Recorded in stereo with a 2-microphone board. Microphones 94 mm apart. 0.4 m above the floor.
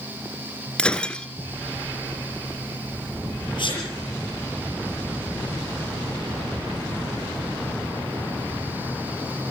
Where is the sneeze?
60° left (ahead or behind), 7.5 m.